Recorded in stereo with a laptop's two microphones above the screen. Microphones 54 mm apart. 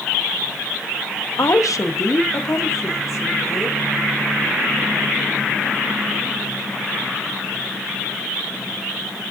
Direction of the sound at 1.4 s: 80° left.